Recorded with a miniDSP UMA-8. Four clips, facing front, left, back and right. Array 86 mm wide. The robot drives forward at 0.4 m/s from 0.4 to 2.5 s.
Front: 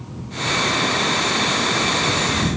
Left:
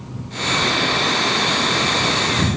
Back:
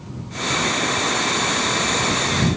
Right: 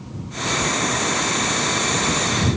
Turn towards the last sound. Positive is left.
No sound to turn to.